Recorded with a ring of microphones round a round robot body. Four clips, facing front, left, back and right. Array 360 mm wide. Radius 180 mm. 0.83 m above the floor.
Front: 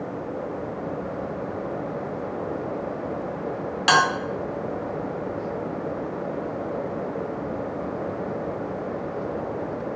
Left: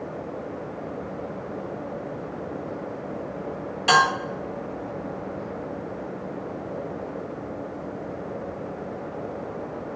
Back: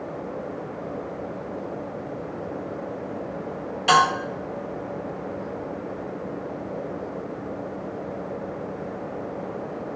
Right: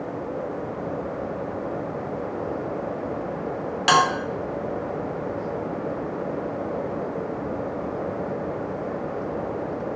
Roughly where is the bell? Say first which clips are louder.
Even, back 2 dB; ahead right.